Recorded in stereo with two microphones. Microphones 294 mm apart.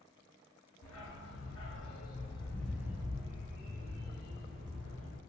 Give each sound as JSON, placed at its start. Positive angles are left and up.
{"t": 0.8, "sound": "a dog barking", "side_deg": 65, "distance_m": 1.0}